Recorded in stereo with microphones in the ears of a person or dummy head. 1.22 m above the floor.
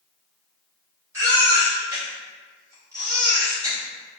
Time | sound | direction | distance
1.1 | a baby crying | 15° right (ahead or behind) | 1.8 m